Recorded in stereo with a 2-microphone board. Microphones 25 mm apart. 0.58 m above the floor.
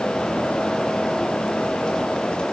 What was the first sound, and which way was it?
Only background noise.